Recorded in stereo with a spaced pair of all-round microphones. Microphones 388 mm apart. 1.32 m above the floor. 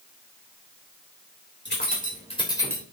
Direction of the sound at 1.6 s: 25° left (ahead or behind).